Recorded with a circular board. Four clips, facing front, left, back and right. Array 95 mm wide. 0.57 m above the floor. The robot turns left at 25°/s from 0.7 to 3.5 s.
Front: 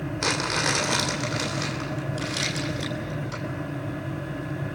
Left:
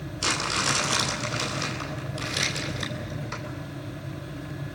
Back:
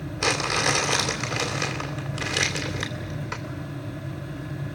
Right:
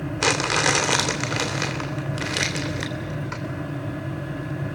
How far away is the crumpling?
About 2.5 m.